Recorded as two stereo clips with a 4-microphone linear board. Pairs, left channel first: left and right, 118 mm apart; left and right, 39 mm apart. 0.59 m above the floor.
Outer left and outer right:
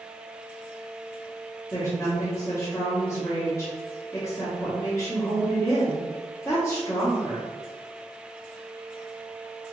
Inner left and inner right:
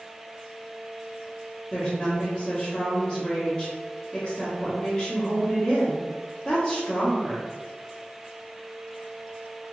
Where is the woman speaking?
20° left (ahead or behind), 0.9 m.